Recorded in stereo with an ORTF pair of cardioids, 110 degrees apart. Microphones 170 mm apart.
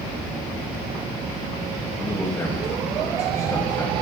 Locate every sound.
2.0 s a man speaking: 15° left, 1.7 m